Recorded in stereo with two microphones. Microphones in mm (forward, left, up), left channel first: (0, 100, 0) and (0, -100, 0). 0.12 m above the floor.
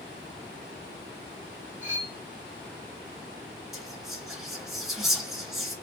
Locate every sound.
1.8 s cutlery clinking: 40° left (ahead or behind), 2.5 m
3.7 s whispering: centre (ahead or behind), 1.9 m